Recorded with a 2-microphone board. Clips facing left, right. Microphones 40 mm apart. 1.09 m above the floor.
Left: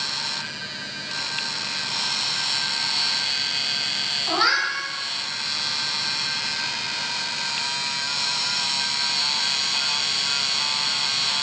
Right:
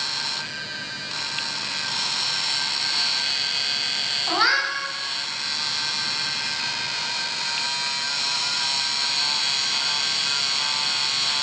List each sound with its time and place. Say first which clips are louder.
4.3 s a cat meowing: even; 5° right (ahead or behind), 0.9 m